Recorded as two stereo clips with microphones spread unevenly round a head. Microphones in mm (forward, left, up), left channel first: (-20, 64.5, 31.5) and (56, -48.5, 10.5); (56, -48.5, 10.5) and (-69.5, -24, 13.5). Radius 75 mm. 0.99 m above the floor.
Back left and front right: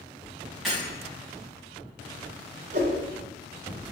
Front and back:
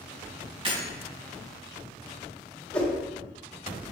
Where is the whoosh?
90° right, 2.5 m.